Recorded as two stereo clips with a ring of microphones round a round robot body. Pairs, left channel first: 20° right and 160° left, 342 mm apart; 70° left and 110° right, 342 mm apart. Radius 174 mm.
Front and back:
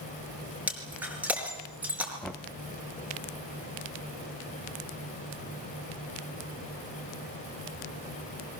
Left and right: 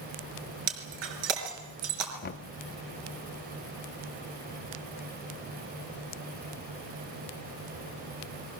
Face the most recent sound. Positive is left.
turn(degrees=65)